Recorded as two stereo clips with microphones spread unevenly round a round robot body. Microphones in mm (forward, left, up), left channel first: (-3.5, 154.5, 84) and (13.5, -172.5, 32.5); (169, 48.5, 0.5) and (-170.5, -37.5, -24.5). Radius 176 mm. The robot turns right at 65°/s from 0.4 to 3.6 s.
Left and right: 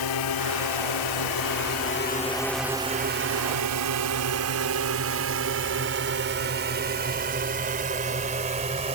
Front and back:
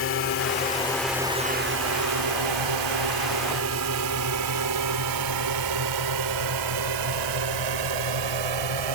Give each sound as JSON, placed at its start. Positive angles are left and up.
{"t": 0.0, "sound": "a drone", "azimuth_deg": 70}